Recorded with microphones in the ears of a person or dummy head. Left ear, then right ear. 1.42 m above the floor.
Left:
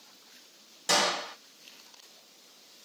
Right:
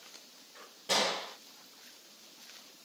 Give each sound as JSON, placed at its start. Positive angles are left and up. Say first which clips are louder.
{"t": 0.9, "sound": "a gunshot", "louder": "left 4 dB", "side_deg": 60, "distance_m": 1.3}